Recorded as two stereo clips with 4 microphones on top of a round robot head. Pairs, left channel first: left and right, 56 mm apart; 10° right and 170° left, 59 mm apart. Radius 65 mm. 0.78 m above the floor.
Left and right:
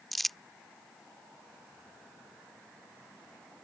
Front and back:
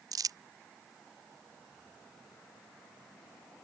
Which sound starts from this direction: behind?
Crumpling, at 0.1 s.